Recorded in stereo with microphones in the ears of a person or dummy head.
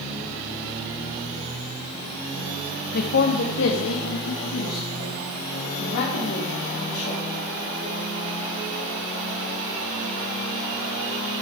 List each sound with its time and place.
2.9 s a man speaking: 55° left (ahead or behind), 0.9 m; by 7.2 s 75° left (ahead or behind), 3 m